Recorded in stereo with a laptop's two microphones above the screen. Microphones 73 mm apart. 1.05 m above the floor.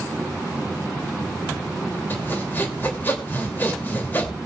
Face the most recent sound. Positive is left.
turn(degrees=25)  # may be behind; listen again after turning